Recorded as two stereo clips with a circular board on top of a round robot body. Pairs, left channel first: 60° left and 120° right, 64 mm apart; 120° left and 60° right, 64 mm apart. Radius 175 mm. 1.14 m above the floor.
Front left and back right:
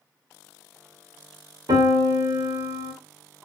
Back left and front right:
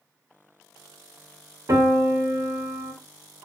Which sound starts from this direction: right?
A piano, at 1.7 s.